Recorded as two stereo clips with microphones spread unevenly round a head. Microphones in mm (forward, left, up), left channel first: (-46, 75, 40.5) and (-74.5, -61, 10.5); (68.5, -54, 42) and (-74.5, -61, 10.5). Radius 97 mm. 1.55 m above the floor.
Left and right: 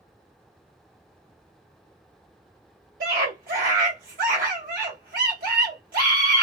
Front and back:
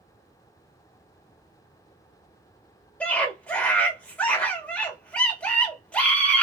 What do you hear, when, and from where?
3.0 s a scream: 80° right, 1.3 m